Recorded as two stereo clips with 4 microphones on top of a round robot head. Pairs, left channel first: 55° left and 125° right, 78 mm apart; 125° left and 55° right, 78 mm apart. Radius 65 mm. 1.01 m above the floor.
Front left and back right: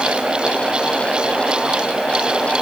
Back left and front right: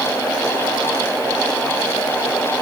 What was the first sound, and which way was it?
Only background noise.